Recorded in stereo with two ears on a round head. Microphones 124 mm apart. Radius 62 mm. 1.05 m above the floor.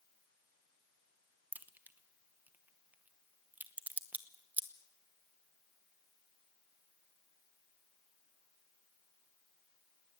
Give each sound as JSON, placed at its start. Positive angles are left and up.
{"t": 1.5, "sound": "a crack", "side_deg": -10, "distance_m": 1.0}